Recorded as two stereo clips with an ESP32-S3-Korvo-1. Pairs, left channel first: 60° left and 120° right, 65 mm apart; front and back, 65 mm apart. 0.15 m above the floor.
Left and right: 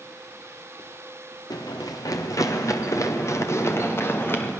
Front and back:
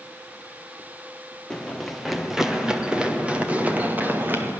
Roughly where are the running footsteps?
Left.